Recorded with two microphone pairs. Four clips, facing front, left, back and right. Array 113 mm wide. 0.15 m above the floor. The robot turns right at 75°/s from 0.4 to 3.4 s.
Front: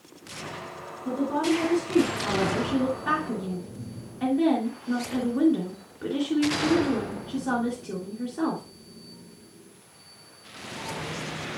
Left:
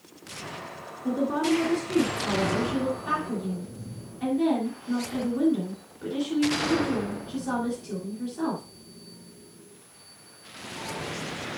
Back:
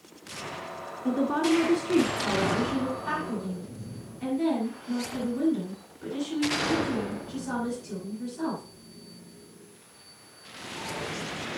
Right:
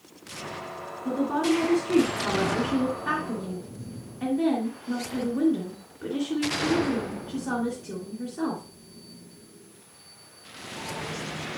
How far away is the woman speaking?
About 2 m.